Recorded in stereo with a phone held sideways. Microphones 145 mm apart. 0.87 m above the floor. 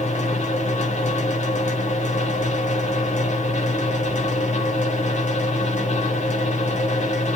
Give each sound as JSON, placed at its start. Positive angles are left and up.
{"t": 0.0, "sound": "a fan", "side_deg": 55, "distance_m": 1.2}